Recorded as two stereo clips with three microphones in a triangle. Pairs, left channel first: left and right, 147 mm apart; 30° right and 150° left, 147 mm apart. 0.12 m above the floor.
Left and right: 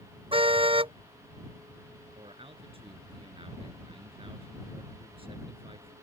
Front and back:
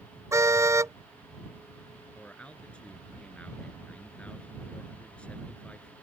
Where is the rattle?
No rattle in this recording.